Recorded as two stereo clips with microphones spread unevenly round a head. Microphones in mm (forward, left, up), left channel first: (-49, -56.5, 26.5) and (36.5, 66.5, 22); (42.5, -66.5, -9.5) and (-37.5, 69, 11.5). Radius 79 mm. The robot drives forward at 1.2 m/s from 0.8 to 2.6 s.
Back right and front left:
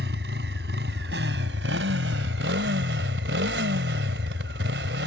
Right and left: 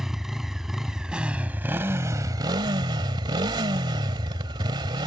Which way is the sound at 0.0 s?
35° left.